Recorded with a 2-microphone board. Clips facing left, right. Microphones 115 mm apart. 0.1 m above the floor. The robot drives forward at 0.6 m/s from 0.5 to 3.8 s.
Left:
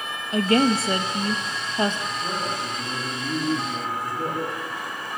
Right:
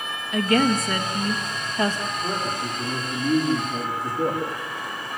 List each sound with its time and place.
0.3 s a woman speaking: 35° left (ahead or behind), 1.7 m; by 2.0 s 25° left (ahead or behind), 2 m
2.1 s a man speaking: 15° right (ahead or behind), 7.5 m